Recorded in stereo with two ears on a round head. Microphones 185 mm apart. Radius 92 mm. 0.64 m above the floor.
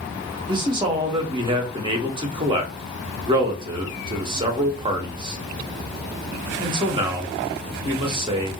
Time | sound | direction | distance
0.5 | a man speaking | 25° right (ahead or behind) | 0.7 m